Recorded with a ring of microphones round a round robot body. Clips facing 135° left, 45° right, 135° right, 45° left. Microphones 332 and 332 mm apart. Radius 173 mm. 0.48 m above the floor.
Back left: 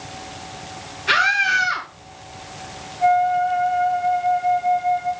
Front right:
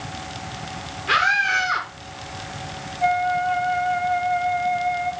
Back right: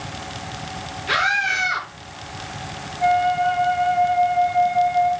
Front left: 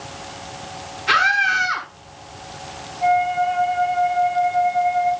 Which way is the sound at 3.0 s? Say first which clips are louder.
Back left 4 dB, even; 115° right.